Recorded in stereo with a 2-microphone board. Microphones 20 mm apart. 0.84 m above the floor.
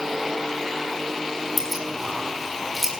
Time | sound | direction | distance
1.6 | keys jangling | 5° right (ahead or behind) | 6 m